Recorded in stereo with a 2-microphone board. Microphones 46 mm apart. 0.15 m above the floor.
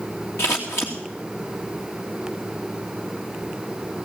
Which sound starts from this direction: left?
Scissors, at 0.4 s.